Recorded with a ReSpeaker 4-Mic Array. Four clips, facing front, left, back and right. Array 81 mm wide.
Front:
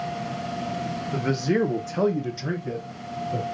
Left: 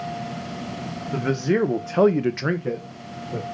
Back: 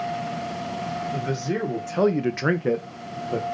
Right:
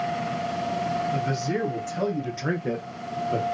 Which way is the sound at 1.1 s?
70° left.